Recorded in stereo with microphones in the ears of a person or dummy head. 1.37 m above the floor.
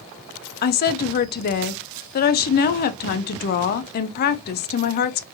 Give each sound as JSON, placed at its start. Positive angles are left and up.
{"t": 0.6, "sound": "a woman speaking", "side_deg": 50, "distance_m": 0.6}